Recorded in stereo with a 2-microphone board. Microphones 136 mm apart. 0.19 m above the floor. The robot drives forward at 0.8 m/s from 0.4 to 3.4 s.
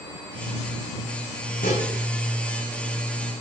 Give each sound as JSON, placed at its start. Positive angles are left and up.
{"t": 1.6, "sound": "dishes clattering", "side_deg": 80, "distance_m": 7.0}